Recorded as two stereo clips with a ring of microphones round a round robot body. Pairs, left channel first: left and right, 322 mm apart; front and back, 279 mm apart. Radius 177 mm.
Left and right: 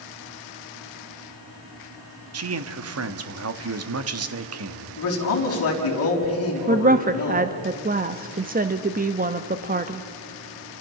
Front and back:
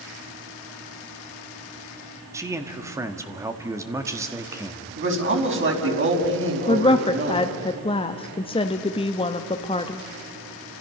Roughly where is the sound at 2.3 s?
Right.